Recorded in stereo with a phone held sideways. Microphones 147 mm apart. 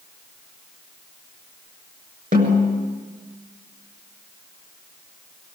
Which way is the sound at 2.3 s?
65° right (ahead or behind).